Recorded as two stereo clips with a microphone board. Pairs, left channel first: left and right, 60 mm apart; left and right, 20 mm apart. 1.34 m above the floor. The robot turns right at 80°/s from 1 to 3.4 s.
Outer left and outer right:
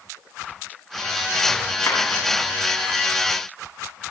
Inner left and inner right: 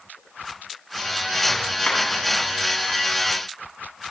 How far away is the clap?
About 8.5 m.